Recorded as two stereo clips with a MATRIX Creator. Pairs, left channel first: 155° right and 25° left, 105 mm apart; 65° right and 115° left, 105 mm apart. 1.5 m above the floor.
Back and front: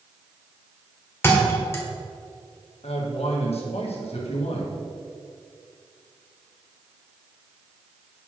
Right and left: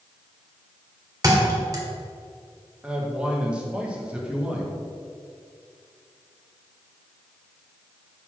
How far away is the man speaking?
About 1.6 m.